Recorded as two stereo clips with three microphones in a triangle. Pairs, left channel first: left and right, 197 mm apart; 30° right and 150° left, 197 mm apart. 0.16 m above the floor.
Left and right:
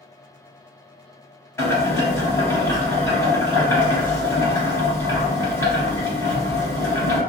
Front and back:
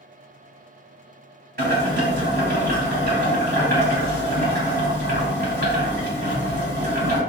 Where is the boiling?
165° left, 1.8 m.